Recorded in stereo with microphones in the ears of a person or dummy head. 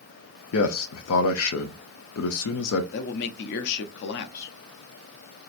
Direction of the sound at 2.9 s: 55° left (ahead or behind).